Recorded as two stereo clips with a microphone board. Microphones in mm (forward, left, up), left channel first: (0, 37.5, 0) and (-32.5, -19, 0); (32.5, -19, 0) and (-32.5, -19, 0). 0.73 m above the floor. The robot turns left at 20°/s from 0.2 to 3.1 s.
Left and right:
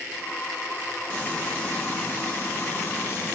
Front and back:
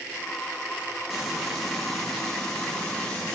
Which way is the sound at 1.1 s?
105° left.